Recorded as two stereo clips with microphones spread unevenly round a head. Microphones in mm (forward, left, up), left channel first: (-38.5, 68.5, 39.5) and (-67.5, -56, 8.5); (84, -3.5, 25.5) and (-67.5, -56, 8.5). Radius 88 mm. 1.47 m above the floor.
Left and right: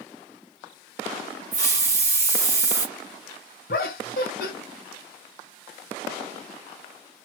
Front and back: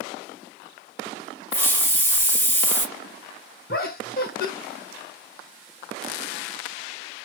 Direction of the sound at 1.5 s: 50° right.